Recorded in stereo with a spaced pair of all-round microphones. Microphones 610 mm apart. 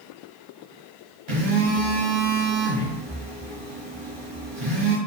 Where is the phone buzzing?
45° right (ahead or behind), 0.8 m.